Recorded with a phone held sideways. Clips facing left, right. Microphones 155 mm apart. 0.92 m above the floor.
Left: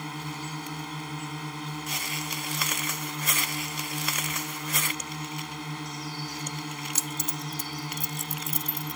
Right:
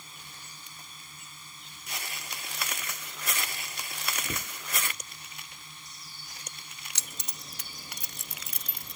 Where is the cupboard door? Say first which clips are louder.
Left 3 dB; 80° right.